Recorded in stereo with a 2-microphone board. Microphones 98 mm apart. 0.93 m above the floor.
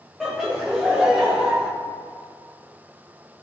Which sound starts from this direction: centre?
Laughter, at 0.2 s.